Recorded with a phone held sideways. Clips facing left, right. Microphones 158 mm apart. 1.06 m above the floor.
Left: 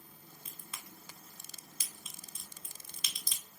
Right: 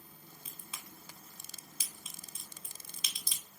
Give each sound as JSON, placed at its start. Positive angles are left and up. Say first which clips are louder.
{"t": 0.5, "sound": "a crack", "louder": "even", "side_deg": -5, "distance_m": 1.1}